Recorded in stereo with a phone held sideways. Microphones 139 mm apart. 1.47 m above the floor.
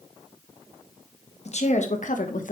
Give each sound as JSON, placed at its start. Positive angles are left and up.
{"t": 1.4, "sound": "a woman speaking", "side_deg": 50, "distance_m": 1.6}